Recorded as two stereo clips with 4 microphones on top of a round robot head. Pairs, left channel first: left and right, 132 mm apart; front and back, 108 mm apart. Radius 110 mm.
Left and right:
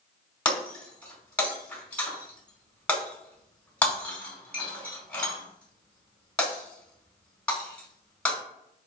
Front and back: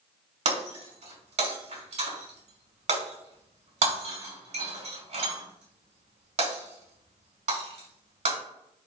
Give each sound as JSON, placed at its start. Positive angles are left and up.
{"t": 0.5, "sound": "breaking glass", "azimuth_deg": 170, "distance_m": 4.5}